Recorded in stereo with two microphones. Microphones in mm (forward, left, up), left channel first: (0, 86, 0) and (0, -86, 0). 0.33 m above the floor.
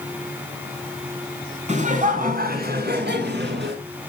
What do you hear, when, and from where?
1.7 s laughter: 40° right (ahead or behind), 3.5 m; by 3.8 s 70° right (ahead or behind), 4 m